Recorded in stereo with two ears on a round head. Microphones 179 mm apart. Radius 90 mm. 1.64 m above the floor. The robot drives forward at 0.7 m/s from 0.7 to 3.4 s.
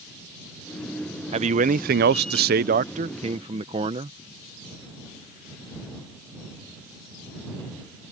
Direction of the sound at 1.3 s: 30° right (ahead or behind).